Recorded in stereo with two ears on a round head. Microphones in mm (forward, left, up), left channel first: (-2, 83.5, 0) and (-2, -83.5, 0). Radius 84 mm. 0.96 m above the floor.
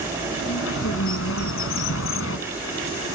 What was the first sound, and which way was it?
A bird, 85° left.